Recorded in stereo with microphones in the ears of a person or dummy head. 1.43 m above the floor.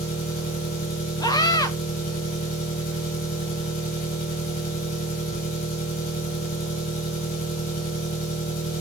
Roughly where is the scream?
Left.